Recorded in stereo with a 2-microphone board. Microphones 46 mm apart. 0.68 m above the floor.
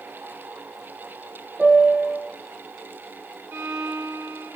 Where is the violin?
80° right, 1.9 m.